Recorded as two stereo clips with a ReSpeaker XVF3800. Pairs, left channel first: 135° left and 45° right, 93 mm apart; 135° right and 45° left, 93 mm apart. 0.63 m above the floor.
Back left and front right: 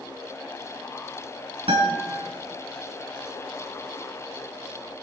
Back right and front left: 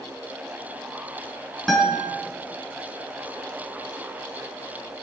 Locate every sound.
1.7 s a guitar: 50° right, 5 m